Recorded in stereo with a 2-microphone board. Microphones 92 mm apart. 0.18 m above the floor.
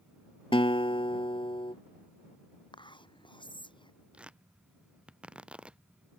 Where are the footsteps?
I don't hear footsteps.